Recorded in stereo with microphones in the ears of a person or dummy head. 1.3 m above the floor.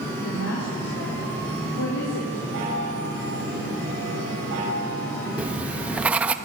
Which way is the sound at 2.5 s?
65° right (ahead or behind).